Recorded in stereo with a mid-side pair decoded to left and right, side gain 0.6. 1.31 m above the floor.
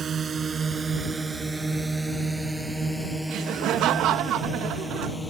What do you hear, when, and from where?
0.0 s a drone: 35° right; by 5.3 s 10° left
3.3 s laughter: 60° right